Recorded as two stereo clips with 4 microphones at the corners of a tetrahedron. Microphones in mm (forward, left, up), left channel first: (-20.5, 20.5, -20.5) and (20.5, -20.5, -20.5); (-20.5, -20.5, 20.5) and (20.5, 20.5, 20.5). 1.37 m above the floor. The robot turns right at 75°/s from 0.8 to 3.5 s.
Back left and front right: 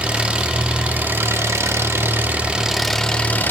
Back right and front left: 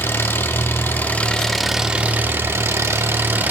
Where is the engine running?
105° right, 1.1 m; by 3.5 s 95° left, 1.1 m.